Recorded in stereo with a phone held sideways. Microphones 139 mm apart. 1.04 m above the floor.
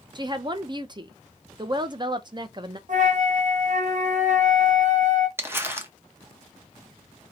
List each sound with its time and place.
0.1 s a woman speaking: 35° right (ahead or behind), 0.5 m
2.9 s a flute: 60° right (ahead or behind), 0.8 m
5.4 s crumpling: 15° right (ahead or behind), 0.8 m